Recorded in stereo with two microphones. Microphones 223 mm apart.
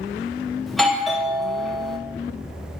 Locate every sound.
0.7 s a doorbell: centre (ahead or behind), 1.1 m